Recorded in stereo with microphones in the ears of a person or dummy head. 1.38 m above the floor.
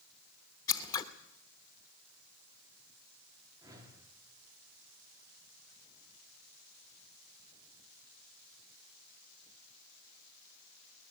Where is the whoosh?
20° right (ahead or behind), 3.5 m.